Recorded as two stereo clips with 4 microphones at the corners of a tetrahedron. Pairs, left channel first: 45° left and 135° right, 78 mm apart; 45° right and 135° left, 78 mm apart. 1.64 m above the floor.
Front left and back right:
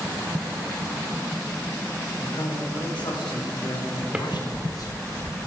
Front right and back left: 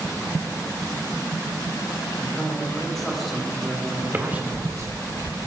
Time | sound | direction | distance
2.2 | a man speaking | 35° left | 2.5 m
4.1 | a drawer | 165° left | 1.4 m